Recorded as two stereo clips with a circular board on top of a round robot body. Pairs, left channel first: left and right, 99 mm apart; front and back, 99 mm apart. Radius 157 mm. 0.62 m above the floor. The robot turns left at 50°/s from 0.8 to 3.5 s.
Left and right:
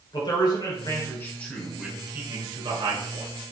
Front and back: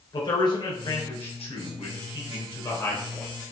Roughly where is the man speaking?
Ahead left.